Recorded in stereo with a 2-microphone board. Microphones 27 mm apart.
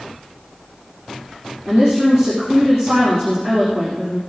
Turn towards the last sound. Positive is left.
turn(degrees=15)  # may be behind; listen again after turning